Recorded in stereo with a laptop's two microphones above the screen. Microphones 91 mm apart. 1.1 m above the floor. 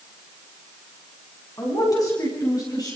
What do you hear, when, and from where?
1.6 s a man speaking: 40° left (ahead or behind), 9.5 m